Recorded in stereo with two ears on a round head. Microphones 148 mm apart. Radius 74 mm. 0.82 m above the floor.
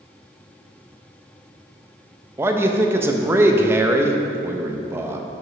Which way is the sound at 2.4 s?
15° right (ahead or behind).